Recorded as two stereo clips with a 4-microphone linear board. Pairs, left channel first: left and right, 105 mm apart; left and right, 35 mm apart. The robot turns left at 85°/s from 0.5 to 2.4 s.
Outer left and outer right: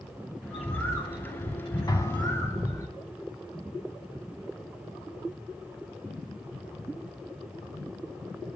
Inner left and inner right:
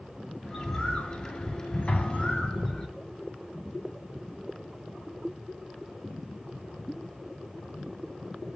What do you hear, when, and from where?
0.4 s a bird: 170° right, 5.5 m; by 2.9 s 30° left, 5.5 m
1.9 s an explosion: 40° left (ahead or behind), 2.5 m; by 2.9 s 5° left (ahead or behind), 2.5 m